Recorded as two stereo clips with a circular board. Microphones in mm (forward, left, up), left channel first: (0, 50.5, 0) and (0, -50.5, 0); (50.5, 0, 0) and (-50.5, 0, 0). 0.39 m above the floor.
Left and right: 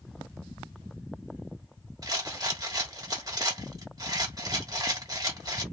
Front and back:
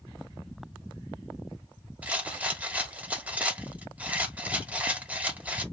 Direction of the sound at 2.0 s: 110° right.